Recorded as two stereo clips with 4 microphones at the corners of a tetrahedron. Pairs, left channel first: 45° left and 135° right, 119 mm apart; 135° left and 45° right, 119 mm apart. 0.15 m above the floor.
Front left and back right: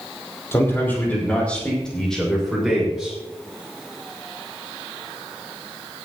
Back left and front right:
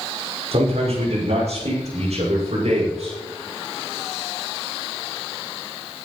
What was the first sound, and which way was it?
A man speaking, 25° right.